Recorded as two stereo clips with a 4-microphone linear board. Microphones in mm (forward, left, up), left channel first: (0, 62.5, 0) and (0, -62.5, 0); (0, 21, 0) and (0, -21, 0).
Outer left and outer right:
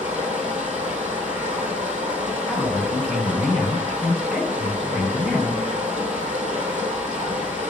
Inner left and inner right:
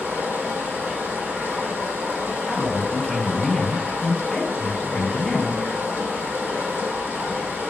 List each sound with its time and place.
0.0 s running water: 70° right (ahead or behind), 1.5 m
2.5 s a man speaking: centre (ahead or behind), 1.7 m